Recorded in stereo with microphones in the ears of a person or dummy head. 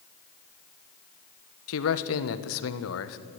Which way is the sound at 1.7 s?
80° left.